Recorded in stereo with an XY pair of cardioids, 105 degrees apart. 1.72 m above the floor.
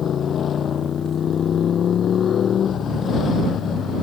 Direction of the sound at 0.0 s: 55° left.